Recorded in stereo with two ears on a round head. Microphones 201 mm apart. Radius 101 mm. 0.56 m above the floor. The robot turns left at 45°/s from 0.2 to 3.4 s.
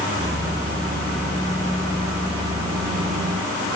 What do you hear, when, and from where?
Only background noise.